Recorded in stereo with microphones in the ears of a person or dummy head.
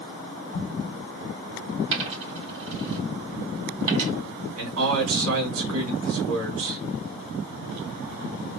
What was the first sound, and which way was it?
An explosion, 45° left (ahead or behind).